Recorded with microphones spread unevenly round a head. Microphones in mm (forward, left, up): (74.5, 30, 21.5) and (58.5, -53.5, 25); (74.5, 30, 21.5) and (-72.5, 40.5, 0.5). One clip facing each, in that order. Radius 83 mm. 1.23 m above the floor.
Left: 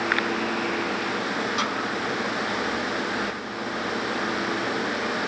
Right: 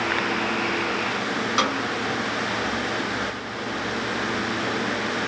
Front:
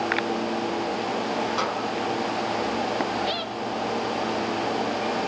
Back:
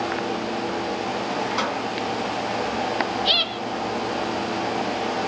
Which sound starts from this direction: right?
A snare drum, at 1.6 s.